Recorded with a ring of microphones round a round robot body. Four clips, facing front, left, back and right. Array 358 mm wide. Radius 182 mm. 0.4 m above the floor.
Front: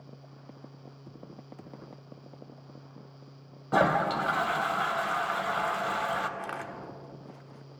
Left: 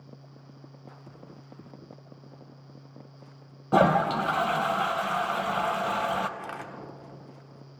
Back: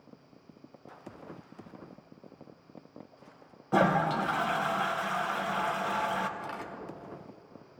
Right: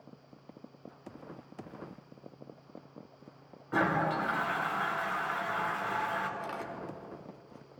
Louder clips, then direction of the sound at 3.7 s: Left 8 dB, front 1 dB; 85° left.